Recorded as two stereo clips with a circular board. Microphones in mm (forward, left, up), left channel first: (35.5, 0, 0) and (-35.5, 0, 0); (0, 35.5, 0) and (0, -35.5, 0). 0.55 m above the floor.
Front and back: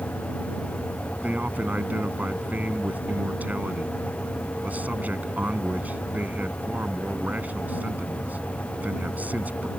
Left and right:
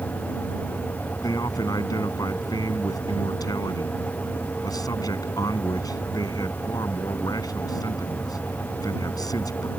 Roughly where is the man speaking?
Behind left.